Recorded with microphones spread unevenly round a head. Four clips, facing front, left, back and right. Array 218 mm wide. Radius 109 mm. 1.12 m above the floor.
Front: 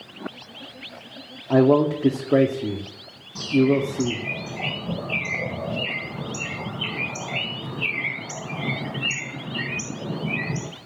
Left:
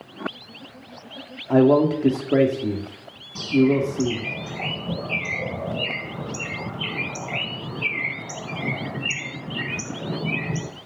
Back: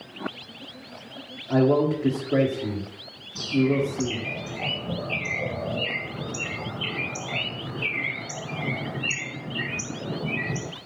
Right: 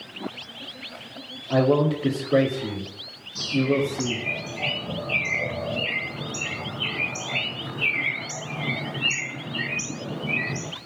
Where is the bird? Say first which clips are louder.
Left 4 dB, front 3 dB; 30° left, 4.5 m.